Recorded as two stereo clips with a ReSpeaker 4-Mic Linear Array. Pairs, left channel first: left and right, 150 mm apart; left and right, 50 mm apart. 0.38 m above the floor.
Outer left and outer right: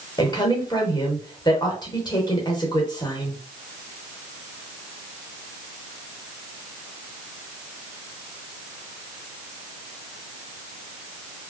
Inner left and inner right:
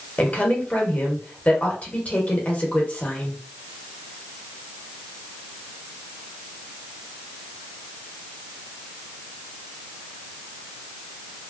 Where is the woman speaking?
30° left (ahead or behind), 0.9 m.